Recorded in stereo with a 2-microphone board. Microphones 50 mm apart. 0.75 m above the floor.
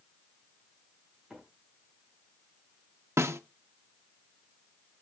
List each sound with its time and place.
1.3 s a microwave: 5° right (ahead or behind), 6.5 m
3.2 s a snare drum: 70° right (ahead or behind), 0.9 m